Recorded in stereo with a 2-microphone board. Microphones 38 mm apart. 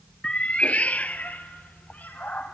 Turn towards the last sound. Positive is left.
turn(degrees=50)  # may be behind; listen again after turning